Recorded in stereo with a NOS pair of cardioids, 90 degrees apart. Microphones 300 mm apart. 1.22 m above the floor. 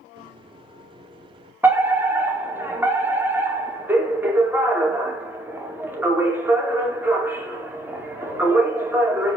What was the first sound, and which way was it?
A microwave, 15° right.